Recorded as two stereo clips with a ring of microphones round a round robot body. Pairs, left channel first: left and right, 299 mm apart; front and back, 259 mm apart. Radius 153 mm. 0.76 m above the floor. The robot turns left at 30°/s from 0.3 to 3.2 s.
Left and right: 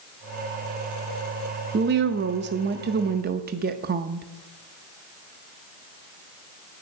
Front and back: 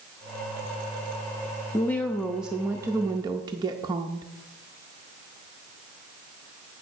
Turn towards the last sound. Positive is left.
turn(degrees=-120)